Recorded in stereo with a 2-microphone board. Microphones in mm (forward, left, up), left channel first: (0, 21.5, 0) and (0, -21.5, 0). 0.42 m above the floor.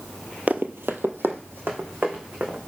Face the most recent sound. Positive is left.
turn(degrees=-50)  # may be behind; listen again after turning